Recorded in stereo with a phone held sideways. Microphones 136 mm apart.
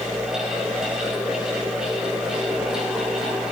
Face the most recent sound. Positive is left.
turn(degrees=-5)  # may be behind; listen again after turning